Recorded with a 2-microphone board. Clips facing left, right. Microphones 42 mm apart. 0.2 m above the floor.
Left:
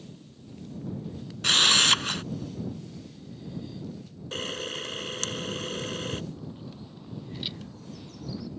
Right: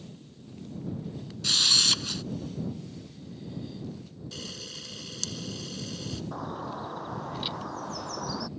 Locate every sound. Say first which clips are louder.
1.4 s a camera shutter: left 5 dB; 50° left (ahead or behind)
4.3 s a camera shutter: left 10 dB; 50° left (ahead or behind)
6.3 s a bird: right 7 dB; 75° right (ahead or behind)